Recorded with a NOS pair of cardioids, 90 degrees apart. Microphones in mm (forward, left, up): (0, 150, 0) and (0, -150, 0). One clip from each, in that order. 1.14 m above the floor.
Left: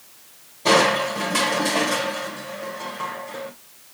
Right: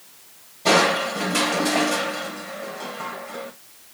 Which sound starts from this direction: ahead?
Crushing, at 0.7 s.